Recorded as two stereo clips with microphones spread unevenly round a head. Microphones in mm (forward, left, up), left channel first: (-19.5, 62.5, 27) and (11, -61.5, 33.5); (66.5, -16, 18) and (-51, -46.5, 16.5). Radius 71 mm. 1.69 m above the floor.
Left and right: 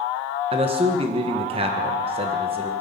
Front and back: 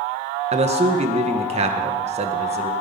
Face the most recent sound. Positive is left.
turn(degrees=-125)